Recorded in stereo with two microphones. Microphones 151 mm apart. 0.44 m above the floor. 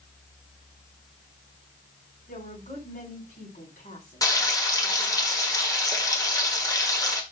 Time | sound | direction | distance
2.3 | a woman speaking | 70° left (ahead or behind) | 4 m
4.2 | frying | 25° left (ahead or behind) | 1.1 m